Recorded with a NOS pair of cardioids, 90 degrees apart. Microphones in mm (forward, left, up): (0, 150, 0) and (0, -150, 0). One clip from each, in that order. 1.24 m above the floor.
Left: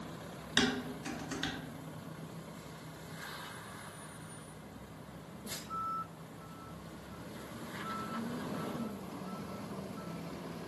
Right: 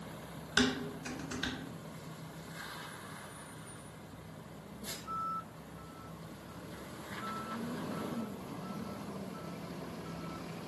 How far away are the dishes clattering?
About 0.8 m.